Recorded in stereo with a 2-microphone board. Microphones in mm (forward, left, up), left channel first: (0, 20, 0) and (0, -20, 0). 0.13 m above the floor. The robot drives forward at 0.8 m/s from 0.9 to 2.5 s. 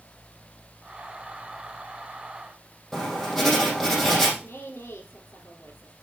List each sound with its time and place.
2.9 s writing: 5° left (ahead or behind), 4.5 m
4.4 s a woman speaking: 60° left (ahead or behind), 3.5 m